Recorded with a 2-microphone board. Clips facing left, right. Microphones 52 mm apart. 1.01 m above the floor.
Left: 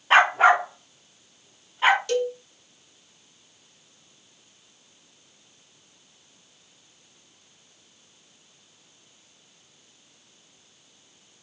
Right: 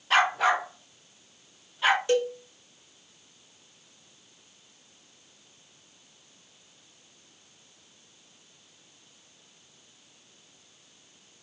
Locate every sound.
0.1 s a dog barking: 30° left (ahead or behind), 0.6 m
2.1 s a cowbell: 25° right (ahead or behind), 0.9 m